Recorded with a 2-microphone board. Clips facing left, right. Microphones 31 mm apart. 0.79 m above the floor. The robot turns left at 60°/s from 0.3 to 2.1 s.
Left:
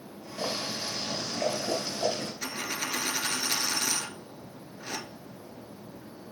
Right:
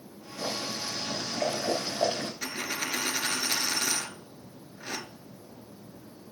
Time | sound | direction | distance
0.4 | boiling | 45° left | 3 m
2.4 | a dropped coin | 15° right (ahead or behind) | 0.9 m